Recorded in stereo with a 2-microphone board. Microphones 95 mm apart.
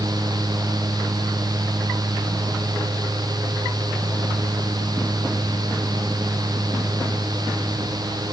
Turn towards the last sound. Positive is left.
No sound to turn to.